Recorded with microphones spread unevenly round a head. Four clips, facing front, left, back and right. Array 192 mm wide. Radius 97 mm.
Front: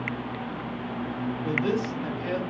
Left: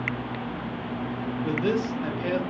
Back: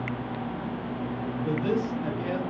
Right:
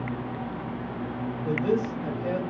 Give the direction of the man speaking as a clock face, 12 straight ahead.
10 o'clock.